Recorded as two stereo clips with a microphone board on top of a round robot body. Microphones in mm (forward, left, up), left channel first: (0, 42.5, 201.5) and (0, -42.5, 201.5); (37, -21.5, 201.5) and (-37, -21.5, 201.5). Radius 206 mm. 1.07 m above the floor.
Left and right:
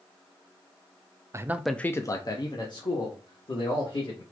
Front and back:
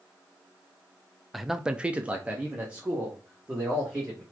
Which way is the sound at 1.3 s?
90° right.